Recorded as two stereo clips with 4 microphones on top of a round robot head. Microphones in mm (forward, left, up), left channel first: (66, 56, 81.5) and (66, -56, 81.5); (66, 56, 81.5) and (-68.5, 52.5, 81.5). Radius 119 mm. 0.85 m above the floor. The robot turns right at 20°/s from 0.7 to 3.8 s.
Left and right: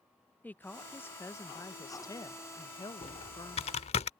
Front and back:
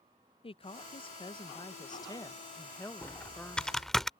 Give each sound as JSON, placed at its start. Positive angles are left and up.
{"t": 0.4, "sound": "a woman speaking", "azimuth_deg": 20}
{"t": 3.0, "sound": "typing on a keyboard", "azimuth_deg": 70}